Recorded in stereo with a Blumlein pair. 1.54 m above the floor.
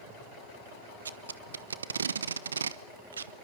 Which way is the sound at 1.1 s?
70° right.